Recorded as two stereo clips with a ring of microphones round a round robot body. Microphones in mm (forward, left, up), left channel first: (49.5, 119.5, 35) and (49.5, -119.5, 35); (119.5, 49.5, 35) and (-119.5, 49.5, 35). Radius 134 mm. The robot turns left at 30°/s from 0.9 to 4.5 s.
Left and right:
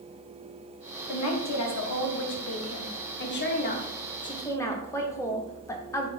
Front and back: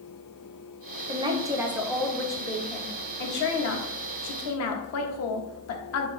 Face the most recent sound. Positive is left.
turn(degrees=10)